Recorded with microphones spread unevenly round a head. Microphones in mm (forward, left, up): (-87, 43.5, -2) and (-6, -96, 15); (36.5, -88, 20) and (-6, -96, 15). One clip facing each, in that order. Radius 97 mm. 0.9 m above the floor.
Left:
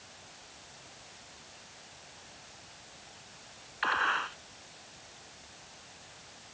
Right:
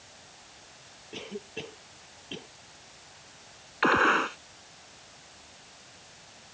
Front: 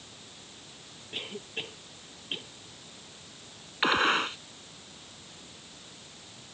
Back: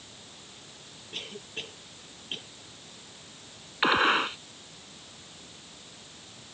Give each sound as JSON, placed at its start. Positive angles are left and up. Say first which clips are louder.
{"t": 1.1, "sound": "a cough", "louder": "right 17 dB, front 2 dB", "azimuth_deg": -60}
{"t": 3.8, "sound": "a gunshot", "louder": "right 10 dB, back 2 dB", "azimuth_deg": -85}